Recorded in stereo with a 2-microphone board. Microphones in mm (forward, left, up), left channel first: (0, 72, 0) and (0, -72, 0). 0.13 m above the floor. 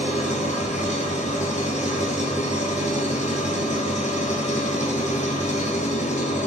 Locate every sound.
0.0 s an engine running: 55° left (ahead or behind), 1.0 m